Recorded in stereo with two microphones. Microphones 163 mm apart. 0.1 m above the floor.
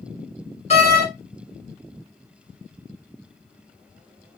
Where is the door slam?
40° left (ahead or behind), 1.6 m.